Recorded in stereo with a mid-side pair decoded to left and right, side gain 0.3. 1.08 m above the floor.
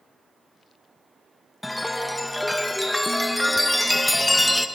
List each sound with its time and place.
1.6 s a chime: 10° left, 0.5 m